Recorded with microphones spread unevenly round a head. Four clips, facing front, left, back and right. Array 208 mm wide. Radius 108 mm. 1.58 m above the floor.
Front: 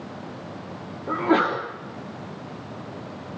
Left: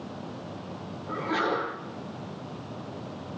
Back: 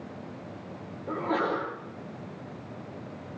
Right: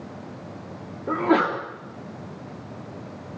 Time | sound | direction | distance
1.1 | a sneeze | 45° right | 3.5 m